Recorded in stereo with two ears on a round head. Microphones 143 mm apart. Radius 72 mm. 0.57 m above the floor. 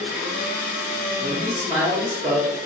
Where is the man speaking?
20° right (ahead or behind), 1.0 m.